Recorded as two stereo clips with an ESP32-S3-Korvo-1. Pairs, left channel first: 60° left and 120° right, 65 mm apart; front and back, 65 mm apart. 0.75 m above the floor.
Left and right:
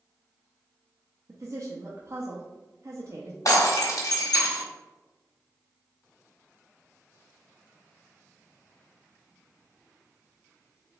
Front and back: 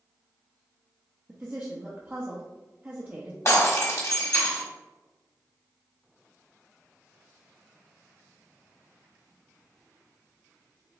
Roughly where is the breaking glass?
Ahead left.